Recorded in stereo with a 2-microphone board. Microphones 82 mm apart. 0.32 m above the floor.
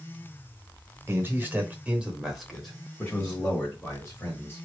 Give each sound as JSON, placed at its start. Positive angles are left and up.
{"t": 1.1, "sound": "a man speaking", "side_deg": -30, "distance_m": 1.0}